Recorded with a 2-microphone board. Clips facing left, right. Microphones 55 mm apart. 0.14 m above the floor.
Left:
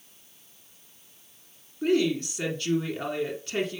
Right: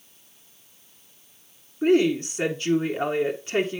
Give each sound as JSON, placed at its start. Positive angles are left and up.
{"t": 1.8, "sound": "a woman speaking", "side_deg": -25, "distance_m": 1.4}